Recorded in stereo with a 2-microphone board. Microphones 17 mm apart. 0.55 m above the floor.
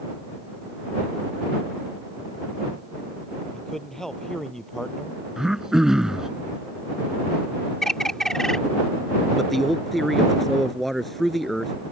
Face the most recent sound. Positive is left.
turn(degrees=15)  # may be behind; listen again after turning